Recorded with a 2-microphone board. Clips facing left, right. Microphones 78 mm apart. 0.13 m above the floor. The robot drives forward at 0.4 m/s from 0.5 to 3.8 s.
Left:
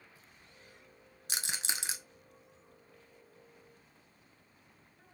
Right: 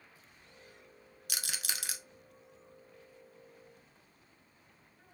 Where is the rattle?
30° left (ahead or behind), 0.6 m; by 2.0 s 25° left (ahead or behind), 0.7 m.